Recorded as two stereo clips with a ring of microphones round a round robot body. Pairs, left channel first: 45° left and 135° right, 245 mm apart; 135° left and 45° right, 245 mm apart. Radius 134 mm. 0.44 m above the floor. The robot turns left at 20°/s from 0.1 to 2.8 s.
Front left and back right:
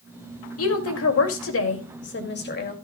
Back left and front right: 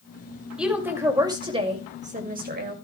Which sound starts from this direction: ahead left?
A woman speaking, at 0.6 s.